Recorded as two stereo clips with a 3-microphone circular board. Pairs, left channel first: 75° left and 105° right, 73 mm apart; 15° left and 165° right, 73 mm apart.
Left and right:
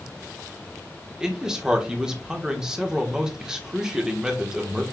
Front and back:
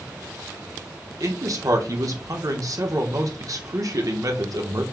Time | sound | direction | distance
1.2 | a man speaking | 175° left | 1.1 m